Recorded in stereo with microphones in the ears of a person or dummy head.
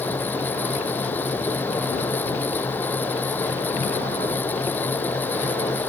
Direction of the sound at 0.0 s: 15° left (ahead or behind).